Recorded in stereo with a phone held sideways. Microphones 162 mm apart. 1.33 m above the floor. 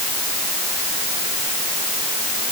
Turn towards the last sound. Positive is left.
No sound to turn to.